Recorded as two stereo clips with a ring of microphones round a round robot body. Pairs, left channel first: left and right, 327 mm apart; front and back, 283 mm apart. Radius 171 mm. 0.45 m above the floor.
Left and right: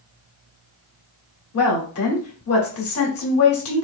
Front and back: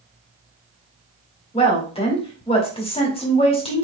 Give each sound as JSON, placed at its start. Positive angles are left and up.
{"t": 1.5, "sound": "a woman speaking", "azimuth_deg": 65, "distance_m": 1.7}